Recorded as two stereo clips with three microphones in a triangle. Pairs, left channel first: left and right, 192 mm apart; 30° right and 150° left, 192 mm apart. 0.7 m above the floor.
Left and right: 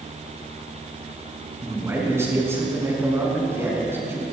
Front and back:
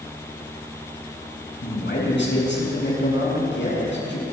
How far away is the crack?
I don't hear a crack.